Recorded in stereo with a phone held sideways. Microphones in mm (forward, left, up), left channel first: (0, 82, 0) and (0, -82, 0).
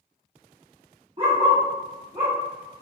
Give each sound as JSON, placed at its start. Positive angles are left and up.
{"t": 1.2, "sound": "a dog barking", "side_deg": -35, "distance_m": 1.1}